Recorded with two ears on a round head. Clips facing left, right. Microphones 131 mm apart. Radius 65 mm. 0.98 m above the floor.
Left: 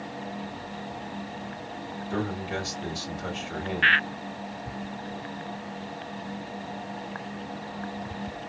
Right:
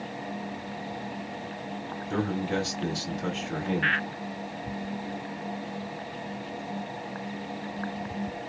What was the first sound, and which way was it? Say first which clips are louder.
A man speaking: right 3 dB; 50° right (ahead or behind).